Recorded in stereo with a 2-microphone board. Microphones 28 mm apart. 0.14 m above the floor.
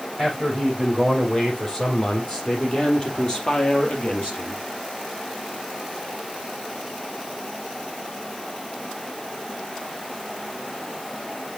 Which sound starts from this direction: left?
A man speaking, at 0.2 s.